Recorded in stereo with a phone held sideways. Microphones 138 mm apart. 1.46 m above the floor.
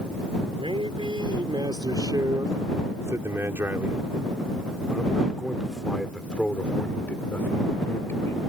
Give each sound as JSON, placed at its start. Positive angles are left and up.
{"t": 0.6, "sound": "a man speaking", "side_deg": -40}